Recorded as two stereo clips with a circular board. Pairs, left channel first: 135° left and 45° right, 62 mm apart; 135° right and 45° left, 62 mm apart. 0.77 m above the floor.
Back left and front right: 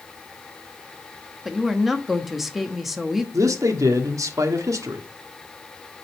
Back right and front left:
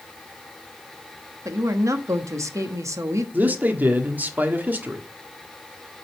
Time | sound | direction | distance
1.4 | a woman speaking | 45° left | 1.2 m
3.3 | a man speaking | 15° right | 1.4 m